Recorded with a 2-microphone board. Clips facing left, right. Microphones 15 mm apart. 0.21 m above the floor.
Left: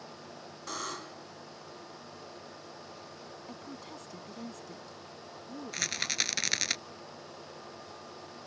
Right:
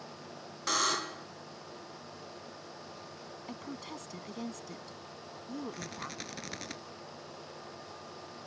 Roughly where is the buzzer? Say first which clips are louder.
Right 9 dB; right.